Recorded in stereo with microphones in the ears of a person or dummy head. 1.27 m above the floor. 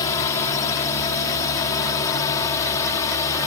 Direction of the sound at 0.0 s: 20° left (ahead or behind).